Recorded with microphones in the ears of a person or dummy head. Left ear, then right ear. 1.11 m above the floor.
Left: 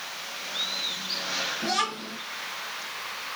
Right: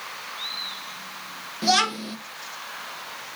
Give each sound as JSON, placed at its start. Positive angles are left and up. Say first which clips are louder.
{"t": 1.6, "sound": "a child speaking", "louder": "right 6 dB", "side_deg": -70, "distance_m": 0.6}